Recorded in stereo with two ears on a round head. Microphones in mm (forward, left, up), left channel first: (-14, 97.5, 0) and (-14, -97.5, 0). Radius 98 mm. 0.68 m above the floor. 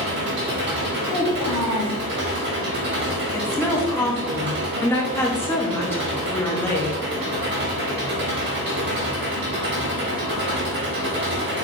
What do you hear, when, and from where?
0.0 s an engine running: 55° right (ahead or behind), 1.8 m
1.1 s a child speaking: 10° right (ahead or behind), 1.9 m
3.3 s a woman speaking: 10° left (ahead or behind), 0.8 m